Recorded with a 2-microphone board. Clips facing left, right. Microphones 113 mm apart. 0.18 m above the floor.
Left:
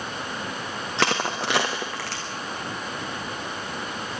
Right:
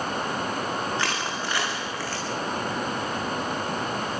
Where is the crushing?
80° left, 3.5 m.